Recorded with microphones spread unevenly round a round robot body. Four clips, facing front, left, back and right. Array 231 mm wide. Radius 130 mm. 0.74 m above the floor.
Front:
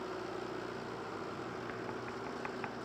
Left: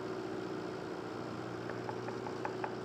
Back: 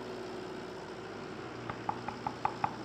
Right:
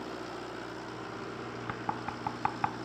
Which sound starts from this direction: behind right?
Knocking, at 1.7 s.